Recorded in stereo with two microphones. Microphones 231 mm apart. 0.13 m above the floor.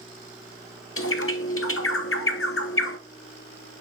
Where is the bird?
65° left (ahead or behind), 0.9 m.